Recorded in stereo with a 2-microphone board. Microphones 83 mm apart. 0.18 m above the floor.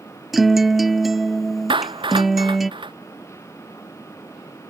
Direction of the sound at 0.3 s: Centre (ahead or behind).